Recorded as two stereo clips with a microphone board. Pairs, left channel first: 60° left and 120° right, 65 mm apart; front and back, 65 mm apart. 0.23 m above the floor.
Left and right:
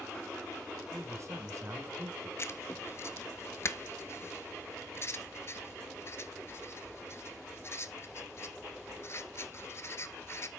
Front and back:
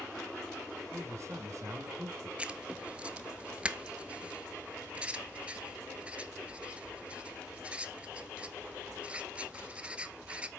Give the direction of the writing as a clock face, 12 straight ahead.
8 o'clock.